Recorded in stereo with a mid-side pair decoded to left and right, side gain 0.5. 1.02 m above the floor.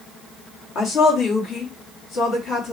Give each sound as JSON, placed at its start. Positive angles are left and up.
{"t": 0.8, "sound": "a woman speaking", "azimuth_deg": 65, "distance_m": 1.6}